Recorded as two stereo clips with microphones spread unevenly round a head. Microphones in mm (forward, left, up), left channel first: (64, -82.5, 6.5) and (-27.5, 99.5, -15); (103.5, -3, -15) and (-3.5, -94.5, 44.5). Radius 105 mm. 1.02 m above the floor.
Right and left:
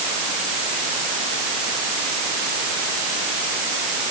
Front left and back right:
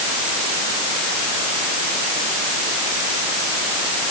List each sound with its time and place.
Only background noise.